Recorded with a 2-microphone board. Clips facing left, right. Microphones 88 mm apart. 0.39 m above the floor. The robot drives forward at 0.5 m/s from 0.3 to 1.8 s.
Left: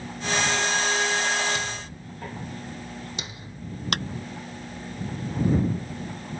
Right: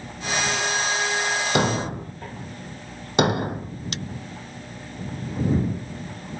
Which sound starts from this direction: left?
A clap, at 3.9 s.